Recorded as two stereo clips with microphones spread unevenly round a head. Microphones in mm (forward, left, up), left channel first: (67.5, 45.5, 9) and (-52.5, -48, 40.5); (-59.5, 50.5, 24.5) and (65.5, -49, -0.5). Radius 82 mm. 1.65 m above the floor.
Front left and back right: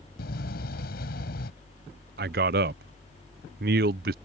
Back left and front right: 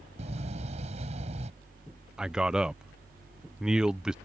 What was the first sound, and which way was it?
A door slam, 15° left.